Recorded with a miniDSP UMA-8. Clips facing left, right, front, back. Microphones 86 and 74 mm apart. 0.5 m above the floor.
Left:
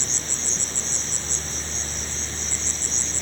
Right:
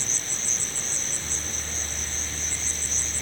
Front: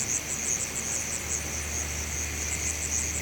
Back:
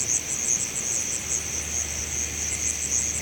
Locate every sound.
0.0 s an insect: 110° left